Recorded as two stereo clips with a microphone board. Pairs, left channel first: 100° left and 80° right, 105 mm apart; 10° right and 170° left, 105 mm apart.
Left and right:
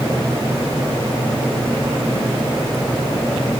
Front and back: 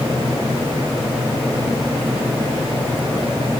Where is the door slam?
I don't hear a door slam.